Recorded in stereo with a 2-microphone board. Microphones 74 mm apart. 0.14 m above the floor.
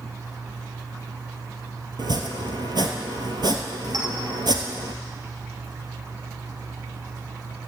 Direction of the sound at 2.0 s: 70° right (ahead or behind).